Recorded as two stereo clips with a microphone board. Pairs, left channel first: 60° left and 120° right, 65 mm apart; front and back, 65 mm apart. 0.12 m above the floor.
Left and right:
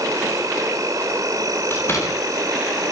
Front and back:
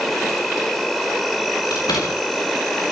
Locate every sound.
0.0 s an insect: 85° right, 4.5 m
1.7 s a door slam: 10° left, 9.5 m